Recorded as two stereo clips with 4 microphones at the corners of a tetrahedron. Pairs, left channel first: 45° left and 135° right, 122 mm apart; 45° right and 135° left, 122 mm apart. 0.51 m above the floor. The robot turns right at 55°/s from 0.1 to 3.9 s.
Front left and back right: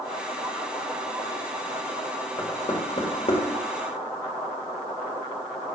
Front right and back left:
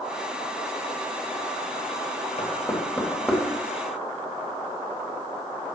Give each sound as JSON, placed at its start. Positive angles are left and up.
{"t": 2.4, "sound": "knocking", "azimuth_deg": -5, "distance_m": 1.5}